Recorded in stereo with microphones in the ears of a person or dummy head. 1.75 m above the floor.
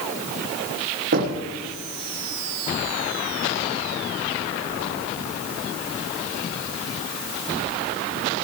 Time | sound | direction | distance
1.1 | knocking | 55° right (ahead or behind) | 1.4 m